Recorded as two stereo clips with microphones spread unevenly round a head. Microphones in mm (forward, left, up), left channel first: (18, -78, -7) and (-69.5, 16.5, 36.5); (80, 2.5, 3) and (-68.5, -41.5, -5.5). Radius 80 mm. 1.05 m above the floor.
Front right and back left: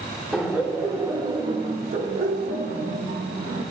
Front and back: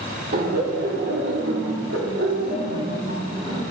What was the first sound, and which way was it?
Laughter, 135° right.